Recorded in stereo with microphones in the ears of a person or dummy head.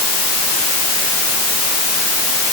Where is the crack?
I don't hear a crack.